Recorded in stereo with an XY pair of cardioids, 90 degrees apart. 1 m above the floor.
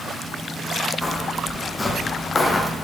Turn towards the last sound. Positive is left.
turn(degrees=30)